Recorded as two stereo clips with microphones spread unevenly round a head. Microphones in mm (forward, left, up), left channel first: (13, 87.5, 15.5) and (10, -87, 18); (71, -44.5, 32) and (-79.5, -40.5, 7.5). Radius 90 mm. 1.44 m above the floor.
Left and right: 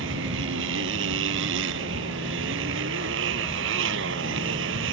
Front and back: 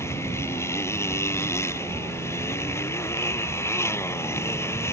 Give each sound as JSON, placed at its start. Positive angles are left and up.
{"t": 0.0, "sound": "a motorcycle", "azimuth_deg": -75}